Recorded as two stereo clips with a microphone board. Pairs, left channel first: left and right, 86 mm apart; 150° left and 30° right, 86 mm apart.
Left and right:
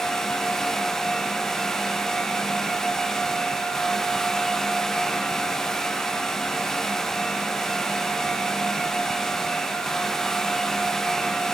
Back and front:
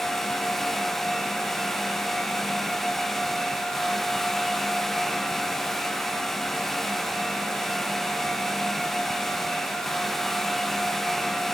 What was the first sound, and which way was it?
Only background noise.